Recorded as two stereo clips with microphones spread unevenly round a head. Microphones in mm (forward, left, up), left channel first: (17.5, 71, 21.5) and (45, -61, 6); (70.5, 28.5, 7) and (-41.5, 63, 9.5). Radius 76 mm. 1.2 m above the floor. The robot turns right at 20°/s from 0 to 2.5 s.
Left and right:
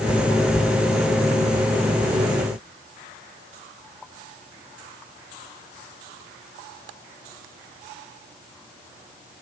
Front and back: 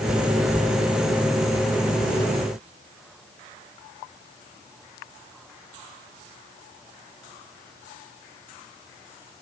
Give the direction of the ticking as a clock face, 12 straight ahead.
I don't hear ticking.